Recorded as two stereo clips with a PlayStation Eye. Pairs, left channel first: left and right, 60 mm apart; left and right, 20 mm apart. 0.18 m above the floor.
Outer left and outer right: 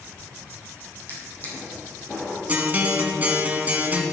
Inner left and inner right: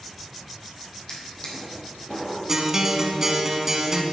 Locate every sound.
1.1 s a drawer: 35° left (ahead or behind), 4 m
2.5 s a guitar: 30° right (ahead or behind), 1.4 m